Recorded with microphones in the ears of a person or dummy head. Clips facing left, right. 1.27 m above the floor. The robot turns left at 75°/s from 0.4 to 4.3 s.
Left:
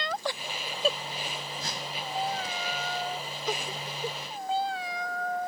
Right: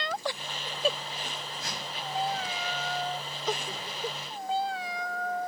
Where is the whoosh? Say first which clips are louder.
Left 2 dB; 40° left (ahead or behind), 7.5 m; by 1.9 s 15° left (ahead or behind), 7.5 m.